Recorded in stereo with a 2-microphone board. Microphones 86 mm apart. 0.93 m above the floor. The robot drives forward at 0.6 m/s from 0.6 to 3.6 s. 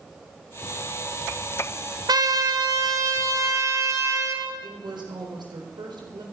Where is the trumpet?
60° right (ahead or behind), 1.7 m; by 4.5 s 40° right (ahead or behind), 2.5 m.